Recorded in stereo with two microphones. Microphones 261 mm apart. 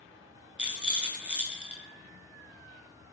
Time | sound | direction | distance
0.6 | a rattle | 5° right (ahead or behind) | 0.6 m